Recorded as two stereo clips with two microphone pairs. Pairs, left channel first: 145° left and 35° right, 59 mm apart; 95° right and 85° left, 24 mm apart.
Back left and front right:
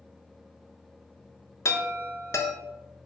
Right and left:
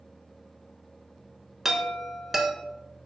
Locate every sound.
1.6 s a chime: 160° left, 0.6 m